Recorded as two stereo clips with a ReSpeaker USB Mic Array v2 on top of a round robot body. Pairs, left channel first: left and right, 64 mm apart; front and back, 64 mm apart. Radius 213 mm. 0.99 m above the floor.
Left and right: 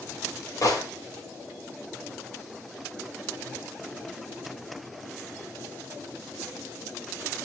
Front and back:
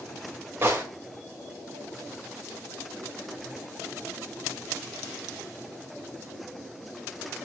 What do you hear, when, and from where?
0.6 s a gunshot: 125° left, 3.5 m